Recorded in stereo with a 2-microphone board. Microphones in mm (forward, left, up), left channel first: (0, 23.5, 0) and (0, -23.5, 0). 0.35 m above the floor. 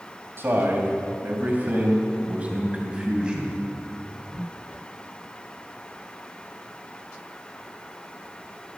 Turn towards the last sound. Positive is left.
turn(degrees=-15)  # may be behind; listen again after turning